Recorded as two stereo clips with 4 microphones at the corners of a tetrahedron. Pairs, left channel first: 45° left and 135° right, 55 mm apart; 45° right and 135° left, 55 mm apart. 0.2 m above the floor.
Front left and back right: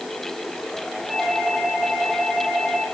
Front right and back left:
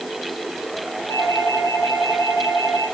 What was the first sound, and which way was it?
A doorbell, 40° right.